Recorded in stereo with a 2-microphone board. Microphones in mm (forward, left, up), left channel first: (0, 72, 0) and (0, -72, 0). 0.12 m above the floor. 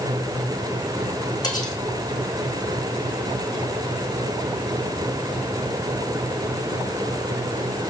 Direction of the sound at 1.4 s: 30° left (ahead or behind).